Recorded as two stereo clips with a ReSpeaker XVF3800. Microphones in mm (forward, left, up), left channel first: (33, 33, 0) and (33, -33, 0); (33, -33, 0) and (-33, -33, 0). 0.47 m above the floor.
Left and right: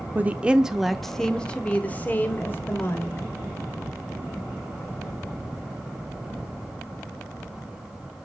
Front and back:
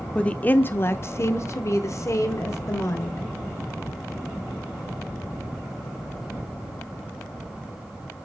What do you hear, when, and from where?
0.1 s a woman speaking: 60° right, 0.8 m; by 3.3 s 40° left, 1.8 m